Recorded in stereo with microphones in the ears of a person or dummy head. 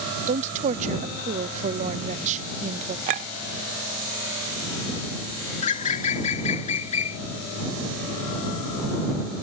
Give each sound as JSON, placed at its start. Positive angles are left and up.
{"t": 0.3, "sound": "a woman speaking", "side_deg": -40}
{"t": 3.1, "sound": "a clink", "side_deg": -35}
{"t": 5.6, "sound": "a bird", "side_deg": 40}